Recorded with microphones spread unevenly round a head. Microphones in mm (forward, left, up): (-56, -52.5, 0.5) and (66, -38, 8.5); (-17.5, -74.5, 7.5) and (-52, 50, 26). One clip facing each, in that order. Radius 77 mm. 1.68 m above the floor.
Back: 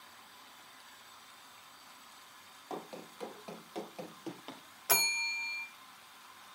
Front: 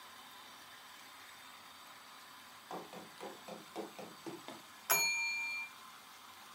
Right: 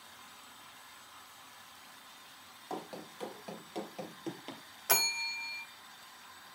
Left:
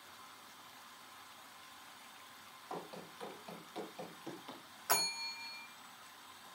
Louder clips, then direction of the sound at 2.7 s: Back 4 dB, right 4 dB; 120° right.